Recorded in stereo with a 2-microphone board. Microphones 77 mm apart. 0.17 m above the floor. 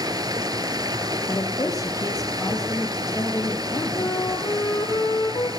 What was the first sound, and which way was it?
Running water, 65° right (ahead or behind).